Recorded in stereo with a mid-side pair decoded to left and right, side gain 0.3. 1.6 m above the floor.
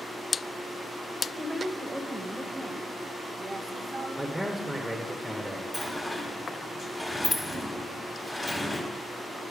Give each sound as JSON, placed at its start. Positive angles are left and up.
{"t": 1.4, "sound": "a woman speaking", "azimuth_deg": -10, "distance_m": 1.3}
{"t": 4.2, "sound": "a man speaking", "azimuth_deg": -10, "distance_m": 1.2}
{"t": 5.7, "sound": "a sliding door", "azimuth_deg": 15, "distance_m": 1.6}